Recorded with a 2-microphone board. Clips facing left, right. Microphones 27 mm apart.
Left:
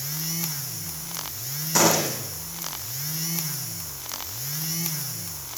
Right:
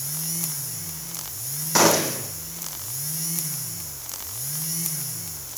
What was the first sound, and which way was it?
A gunshot, 25° right (ahead or behind).